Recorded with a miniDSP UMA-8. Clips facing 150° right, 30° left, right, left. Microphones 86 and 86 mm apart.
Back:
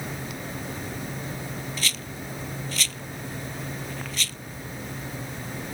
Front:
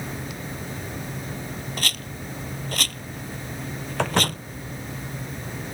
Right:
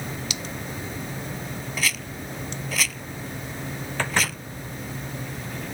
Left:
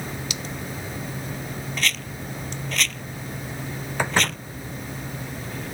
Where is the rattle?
5° right.